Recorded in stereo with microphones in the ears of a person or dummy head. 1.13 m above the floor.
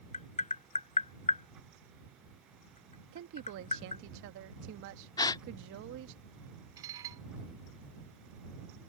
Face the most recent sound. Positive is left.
turn(degrees=-25)  # may be behind; listen again after turning